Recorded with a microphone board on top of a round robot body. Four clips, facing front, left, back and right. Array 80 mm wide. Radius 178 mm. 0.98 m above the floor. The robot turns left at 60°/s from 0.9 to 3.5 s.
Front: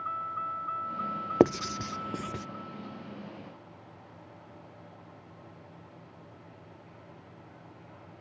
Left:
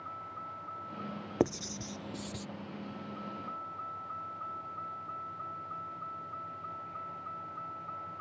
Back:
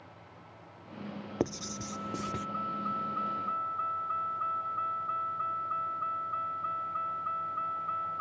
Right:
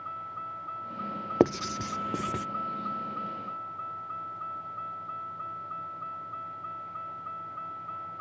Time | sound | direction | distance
0.0 | a vehicle | 15° right | ?
1.4 | writing | 35° right | ?